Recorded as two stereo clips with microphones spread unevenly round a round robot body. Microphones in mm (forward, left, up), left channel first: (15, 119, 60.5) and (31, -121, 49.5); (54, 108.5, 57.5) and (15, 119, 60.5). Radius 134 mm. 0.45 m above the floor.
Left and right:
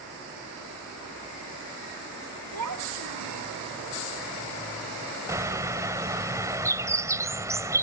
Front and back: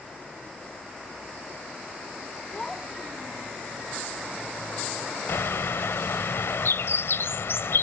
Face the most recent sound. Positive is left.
turn(degrees=-10)